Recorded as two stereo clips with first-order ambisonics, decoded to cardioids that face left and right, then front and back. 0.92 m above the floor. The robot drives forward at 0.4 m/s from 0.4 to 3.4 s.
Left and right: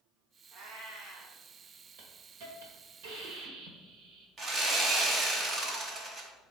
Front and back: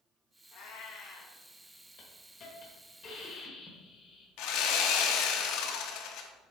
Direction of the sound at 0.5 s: 40° right.